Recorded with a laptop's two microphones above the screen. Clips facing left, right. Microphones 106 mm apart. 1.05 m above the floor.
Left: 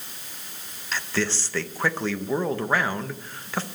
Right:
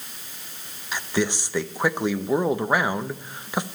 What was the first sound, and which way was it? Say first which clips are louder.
A man speaking: right 2 dB; 15° right (ahead or behind).